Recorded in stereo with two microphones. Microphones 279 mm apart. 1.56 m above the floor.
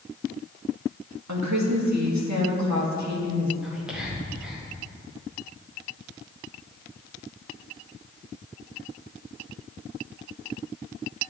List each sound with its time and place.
1.3 s a woman speaking: 80° right, 2 m
3.6 s whispering: 5° right (ahead or behind), 1.6 m